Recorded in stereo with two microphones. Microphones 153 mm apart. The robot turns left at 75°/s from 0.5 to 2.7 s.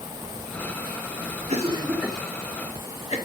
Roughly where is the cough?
Right.